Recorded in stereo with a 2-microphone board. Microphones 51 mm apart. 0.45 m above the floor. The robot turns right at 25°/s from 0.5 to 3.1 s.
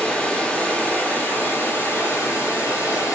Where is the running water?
25° left, 1.3 m; by 3.2 s 90° left, 1.3 m.